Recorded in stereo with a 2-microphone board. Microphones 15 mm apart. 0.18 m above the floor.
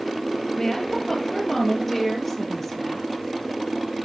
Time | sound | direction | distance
0.6 | a woman speaking | 25° left (ahead or behind) | 3 m